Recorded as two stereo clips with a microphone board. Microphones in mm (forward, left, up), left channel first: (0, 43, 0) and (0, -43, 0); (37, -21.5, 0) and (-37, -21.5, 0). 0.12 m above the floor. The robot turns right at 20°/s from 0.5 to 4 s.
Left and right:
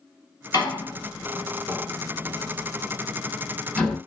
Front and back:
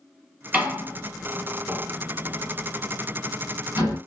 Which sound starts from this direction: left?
A door slam, at 0.5 s.